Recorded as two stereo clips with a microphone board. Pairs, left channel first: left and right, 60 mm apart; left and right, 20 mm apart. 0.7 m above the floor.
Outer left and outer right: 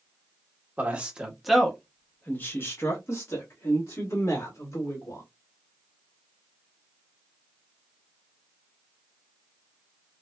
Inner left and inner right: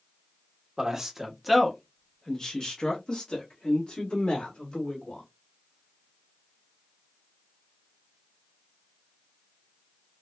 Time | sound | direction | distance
0.8 | a man speaking | 25° right (ahead or behind) | 0.8 m